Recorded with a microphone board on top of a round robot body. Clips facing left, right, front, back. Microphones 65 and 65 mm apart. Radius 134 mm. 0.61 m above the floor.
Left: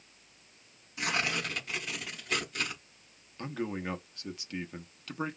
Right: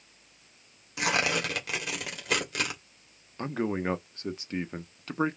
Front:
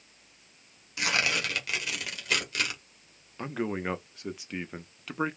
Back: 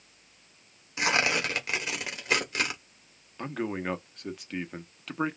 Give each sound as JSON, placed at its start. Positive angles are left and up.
{"t": 1.0, "sound": "tearing paper", "azimuth_deg": -115, "distance_m": 1.3}
{"t": 3.4, "sound": "a man speaking", "azimuth_deg": -85, "distance_m": 1.0}